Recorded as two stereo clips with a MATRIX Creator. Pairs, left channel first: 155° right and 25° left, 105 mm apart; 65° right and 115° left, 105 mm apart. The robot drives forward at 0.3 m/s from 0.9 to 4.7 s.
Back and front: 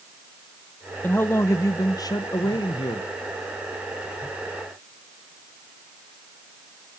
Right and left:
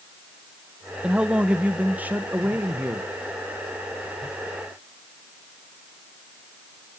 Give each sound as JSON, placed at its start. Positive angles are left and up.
{"t": 1.0, "sound": "a man speaking", "azimuth_deg": 175, "distance_m": 0.6}